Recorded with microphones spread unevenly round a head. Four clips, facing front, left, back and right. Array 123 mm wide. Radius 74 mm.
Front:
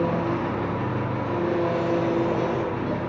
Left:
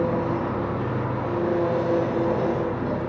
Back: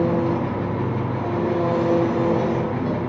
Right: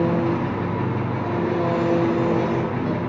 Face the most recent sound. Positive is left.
turn(degrees=180)